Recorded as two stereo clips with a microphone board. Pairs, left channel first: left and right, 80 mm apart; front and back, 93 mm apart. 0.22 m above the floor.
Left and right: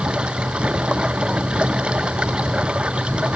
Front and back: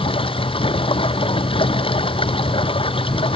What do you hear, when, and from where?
0.0 s running water: 15° right